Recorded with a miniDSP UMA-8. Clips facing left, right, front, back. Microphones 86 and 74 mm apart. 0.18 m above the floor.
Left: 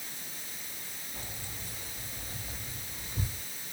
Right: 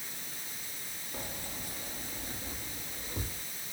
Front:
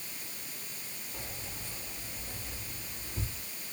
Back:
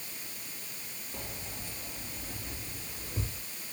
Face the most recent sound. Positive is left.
turn(degrees=-140)